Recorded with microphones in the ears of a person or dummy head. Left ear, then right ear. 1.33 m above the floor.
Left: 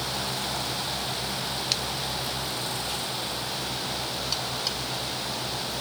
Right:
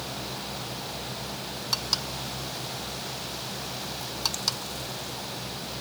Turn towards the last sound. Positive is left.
No sound to turn to.